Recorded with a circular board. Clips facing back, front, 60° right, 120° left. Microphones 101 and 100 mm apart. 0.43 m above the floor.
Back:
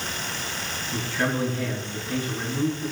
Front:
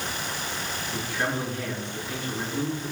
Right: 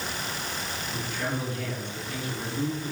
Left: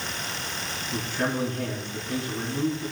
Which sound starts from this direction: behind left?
A man speaking, at 0.9 s.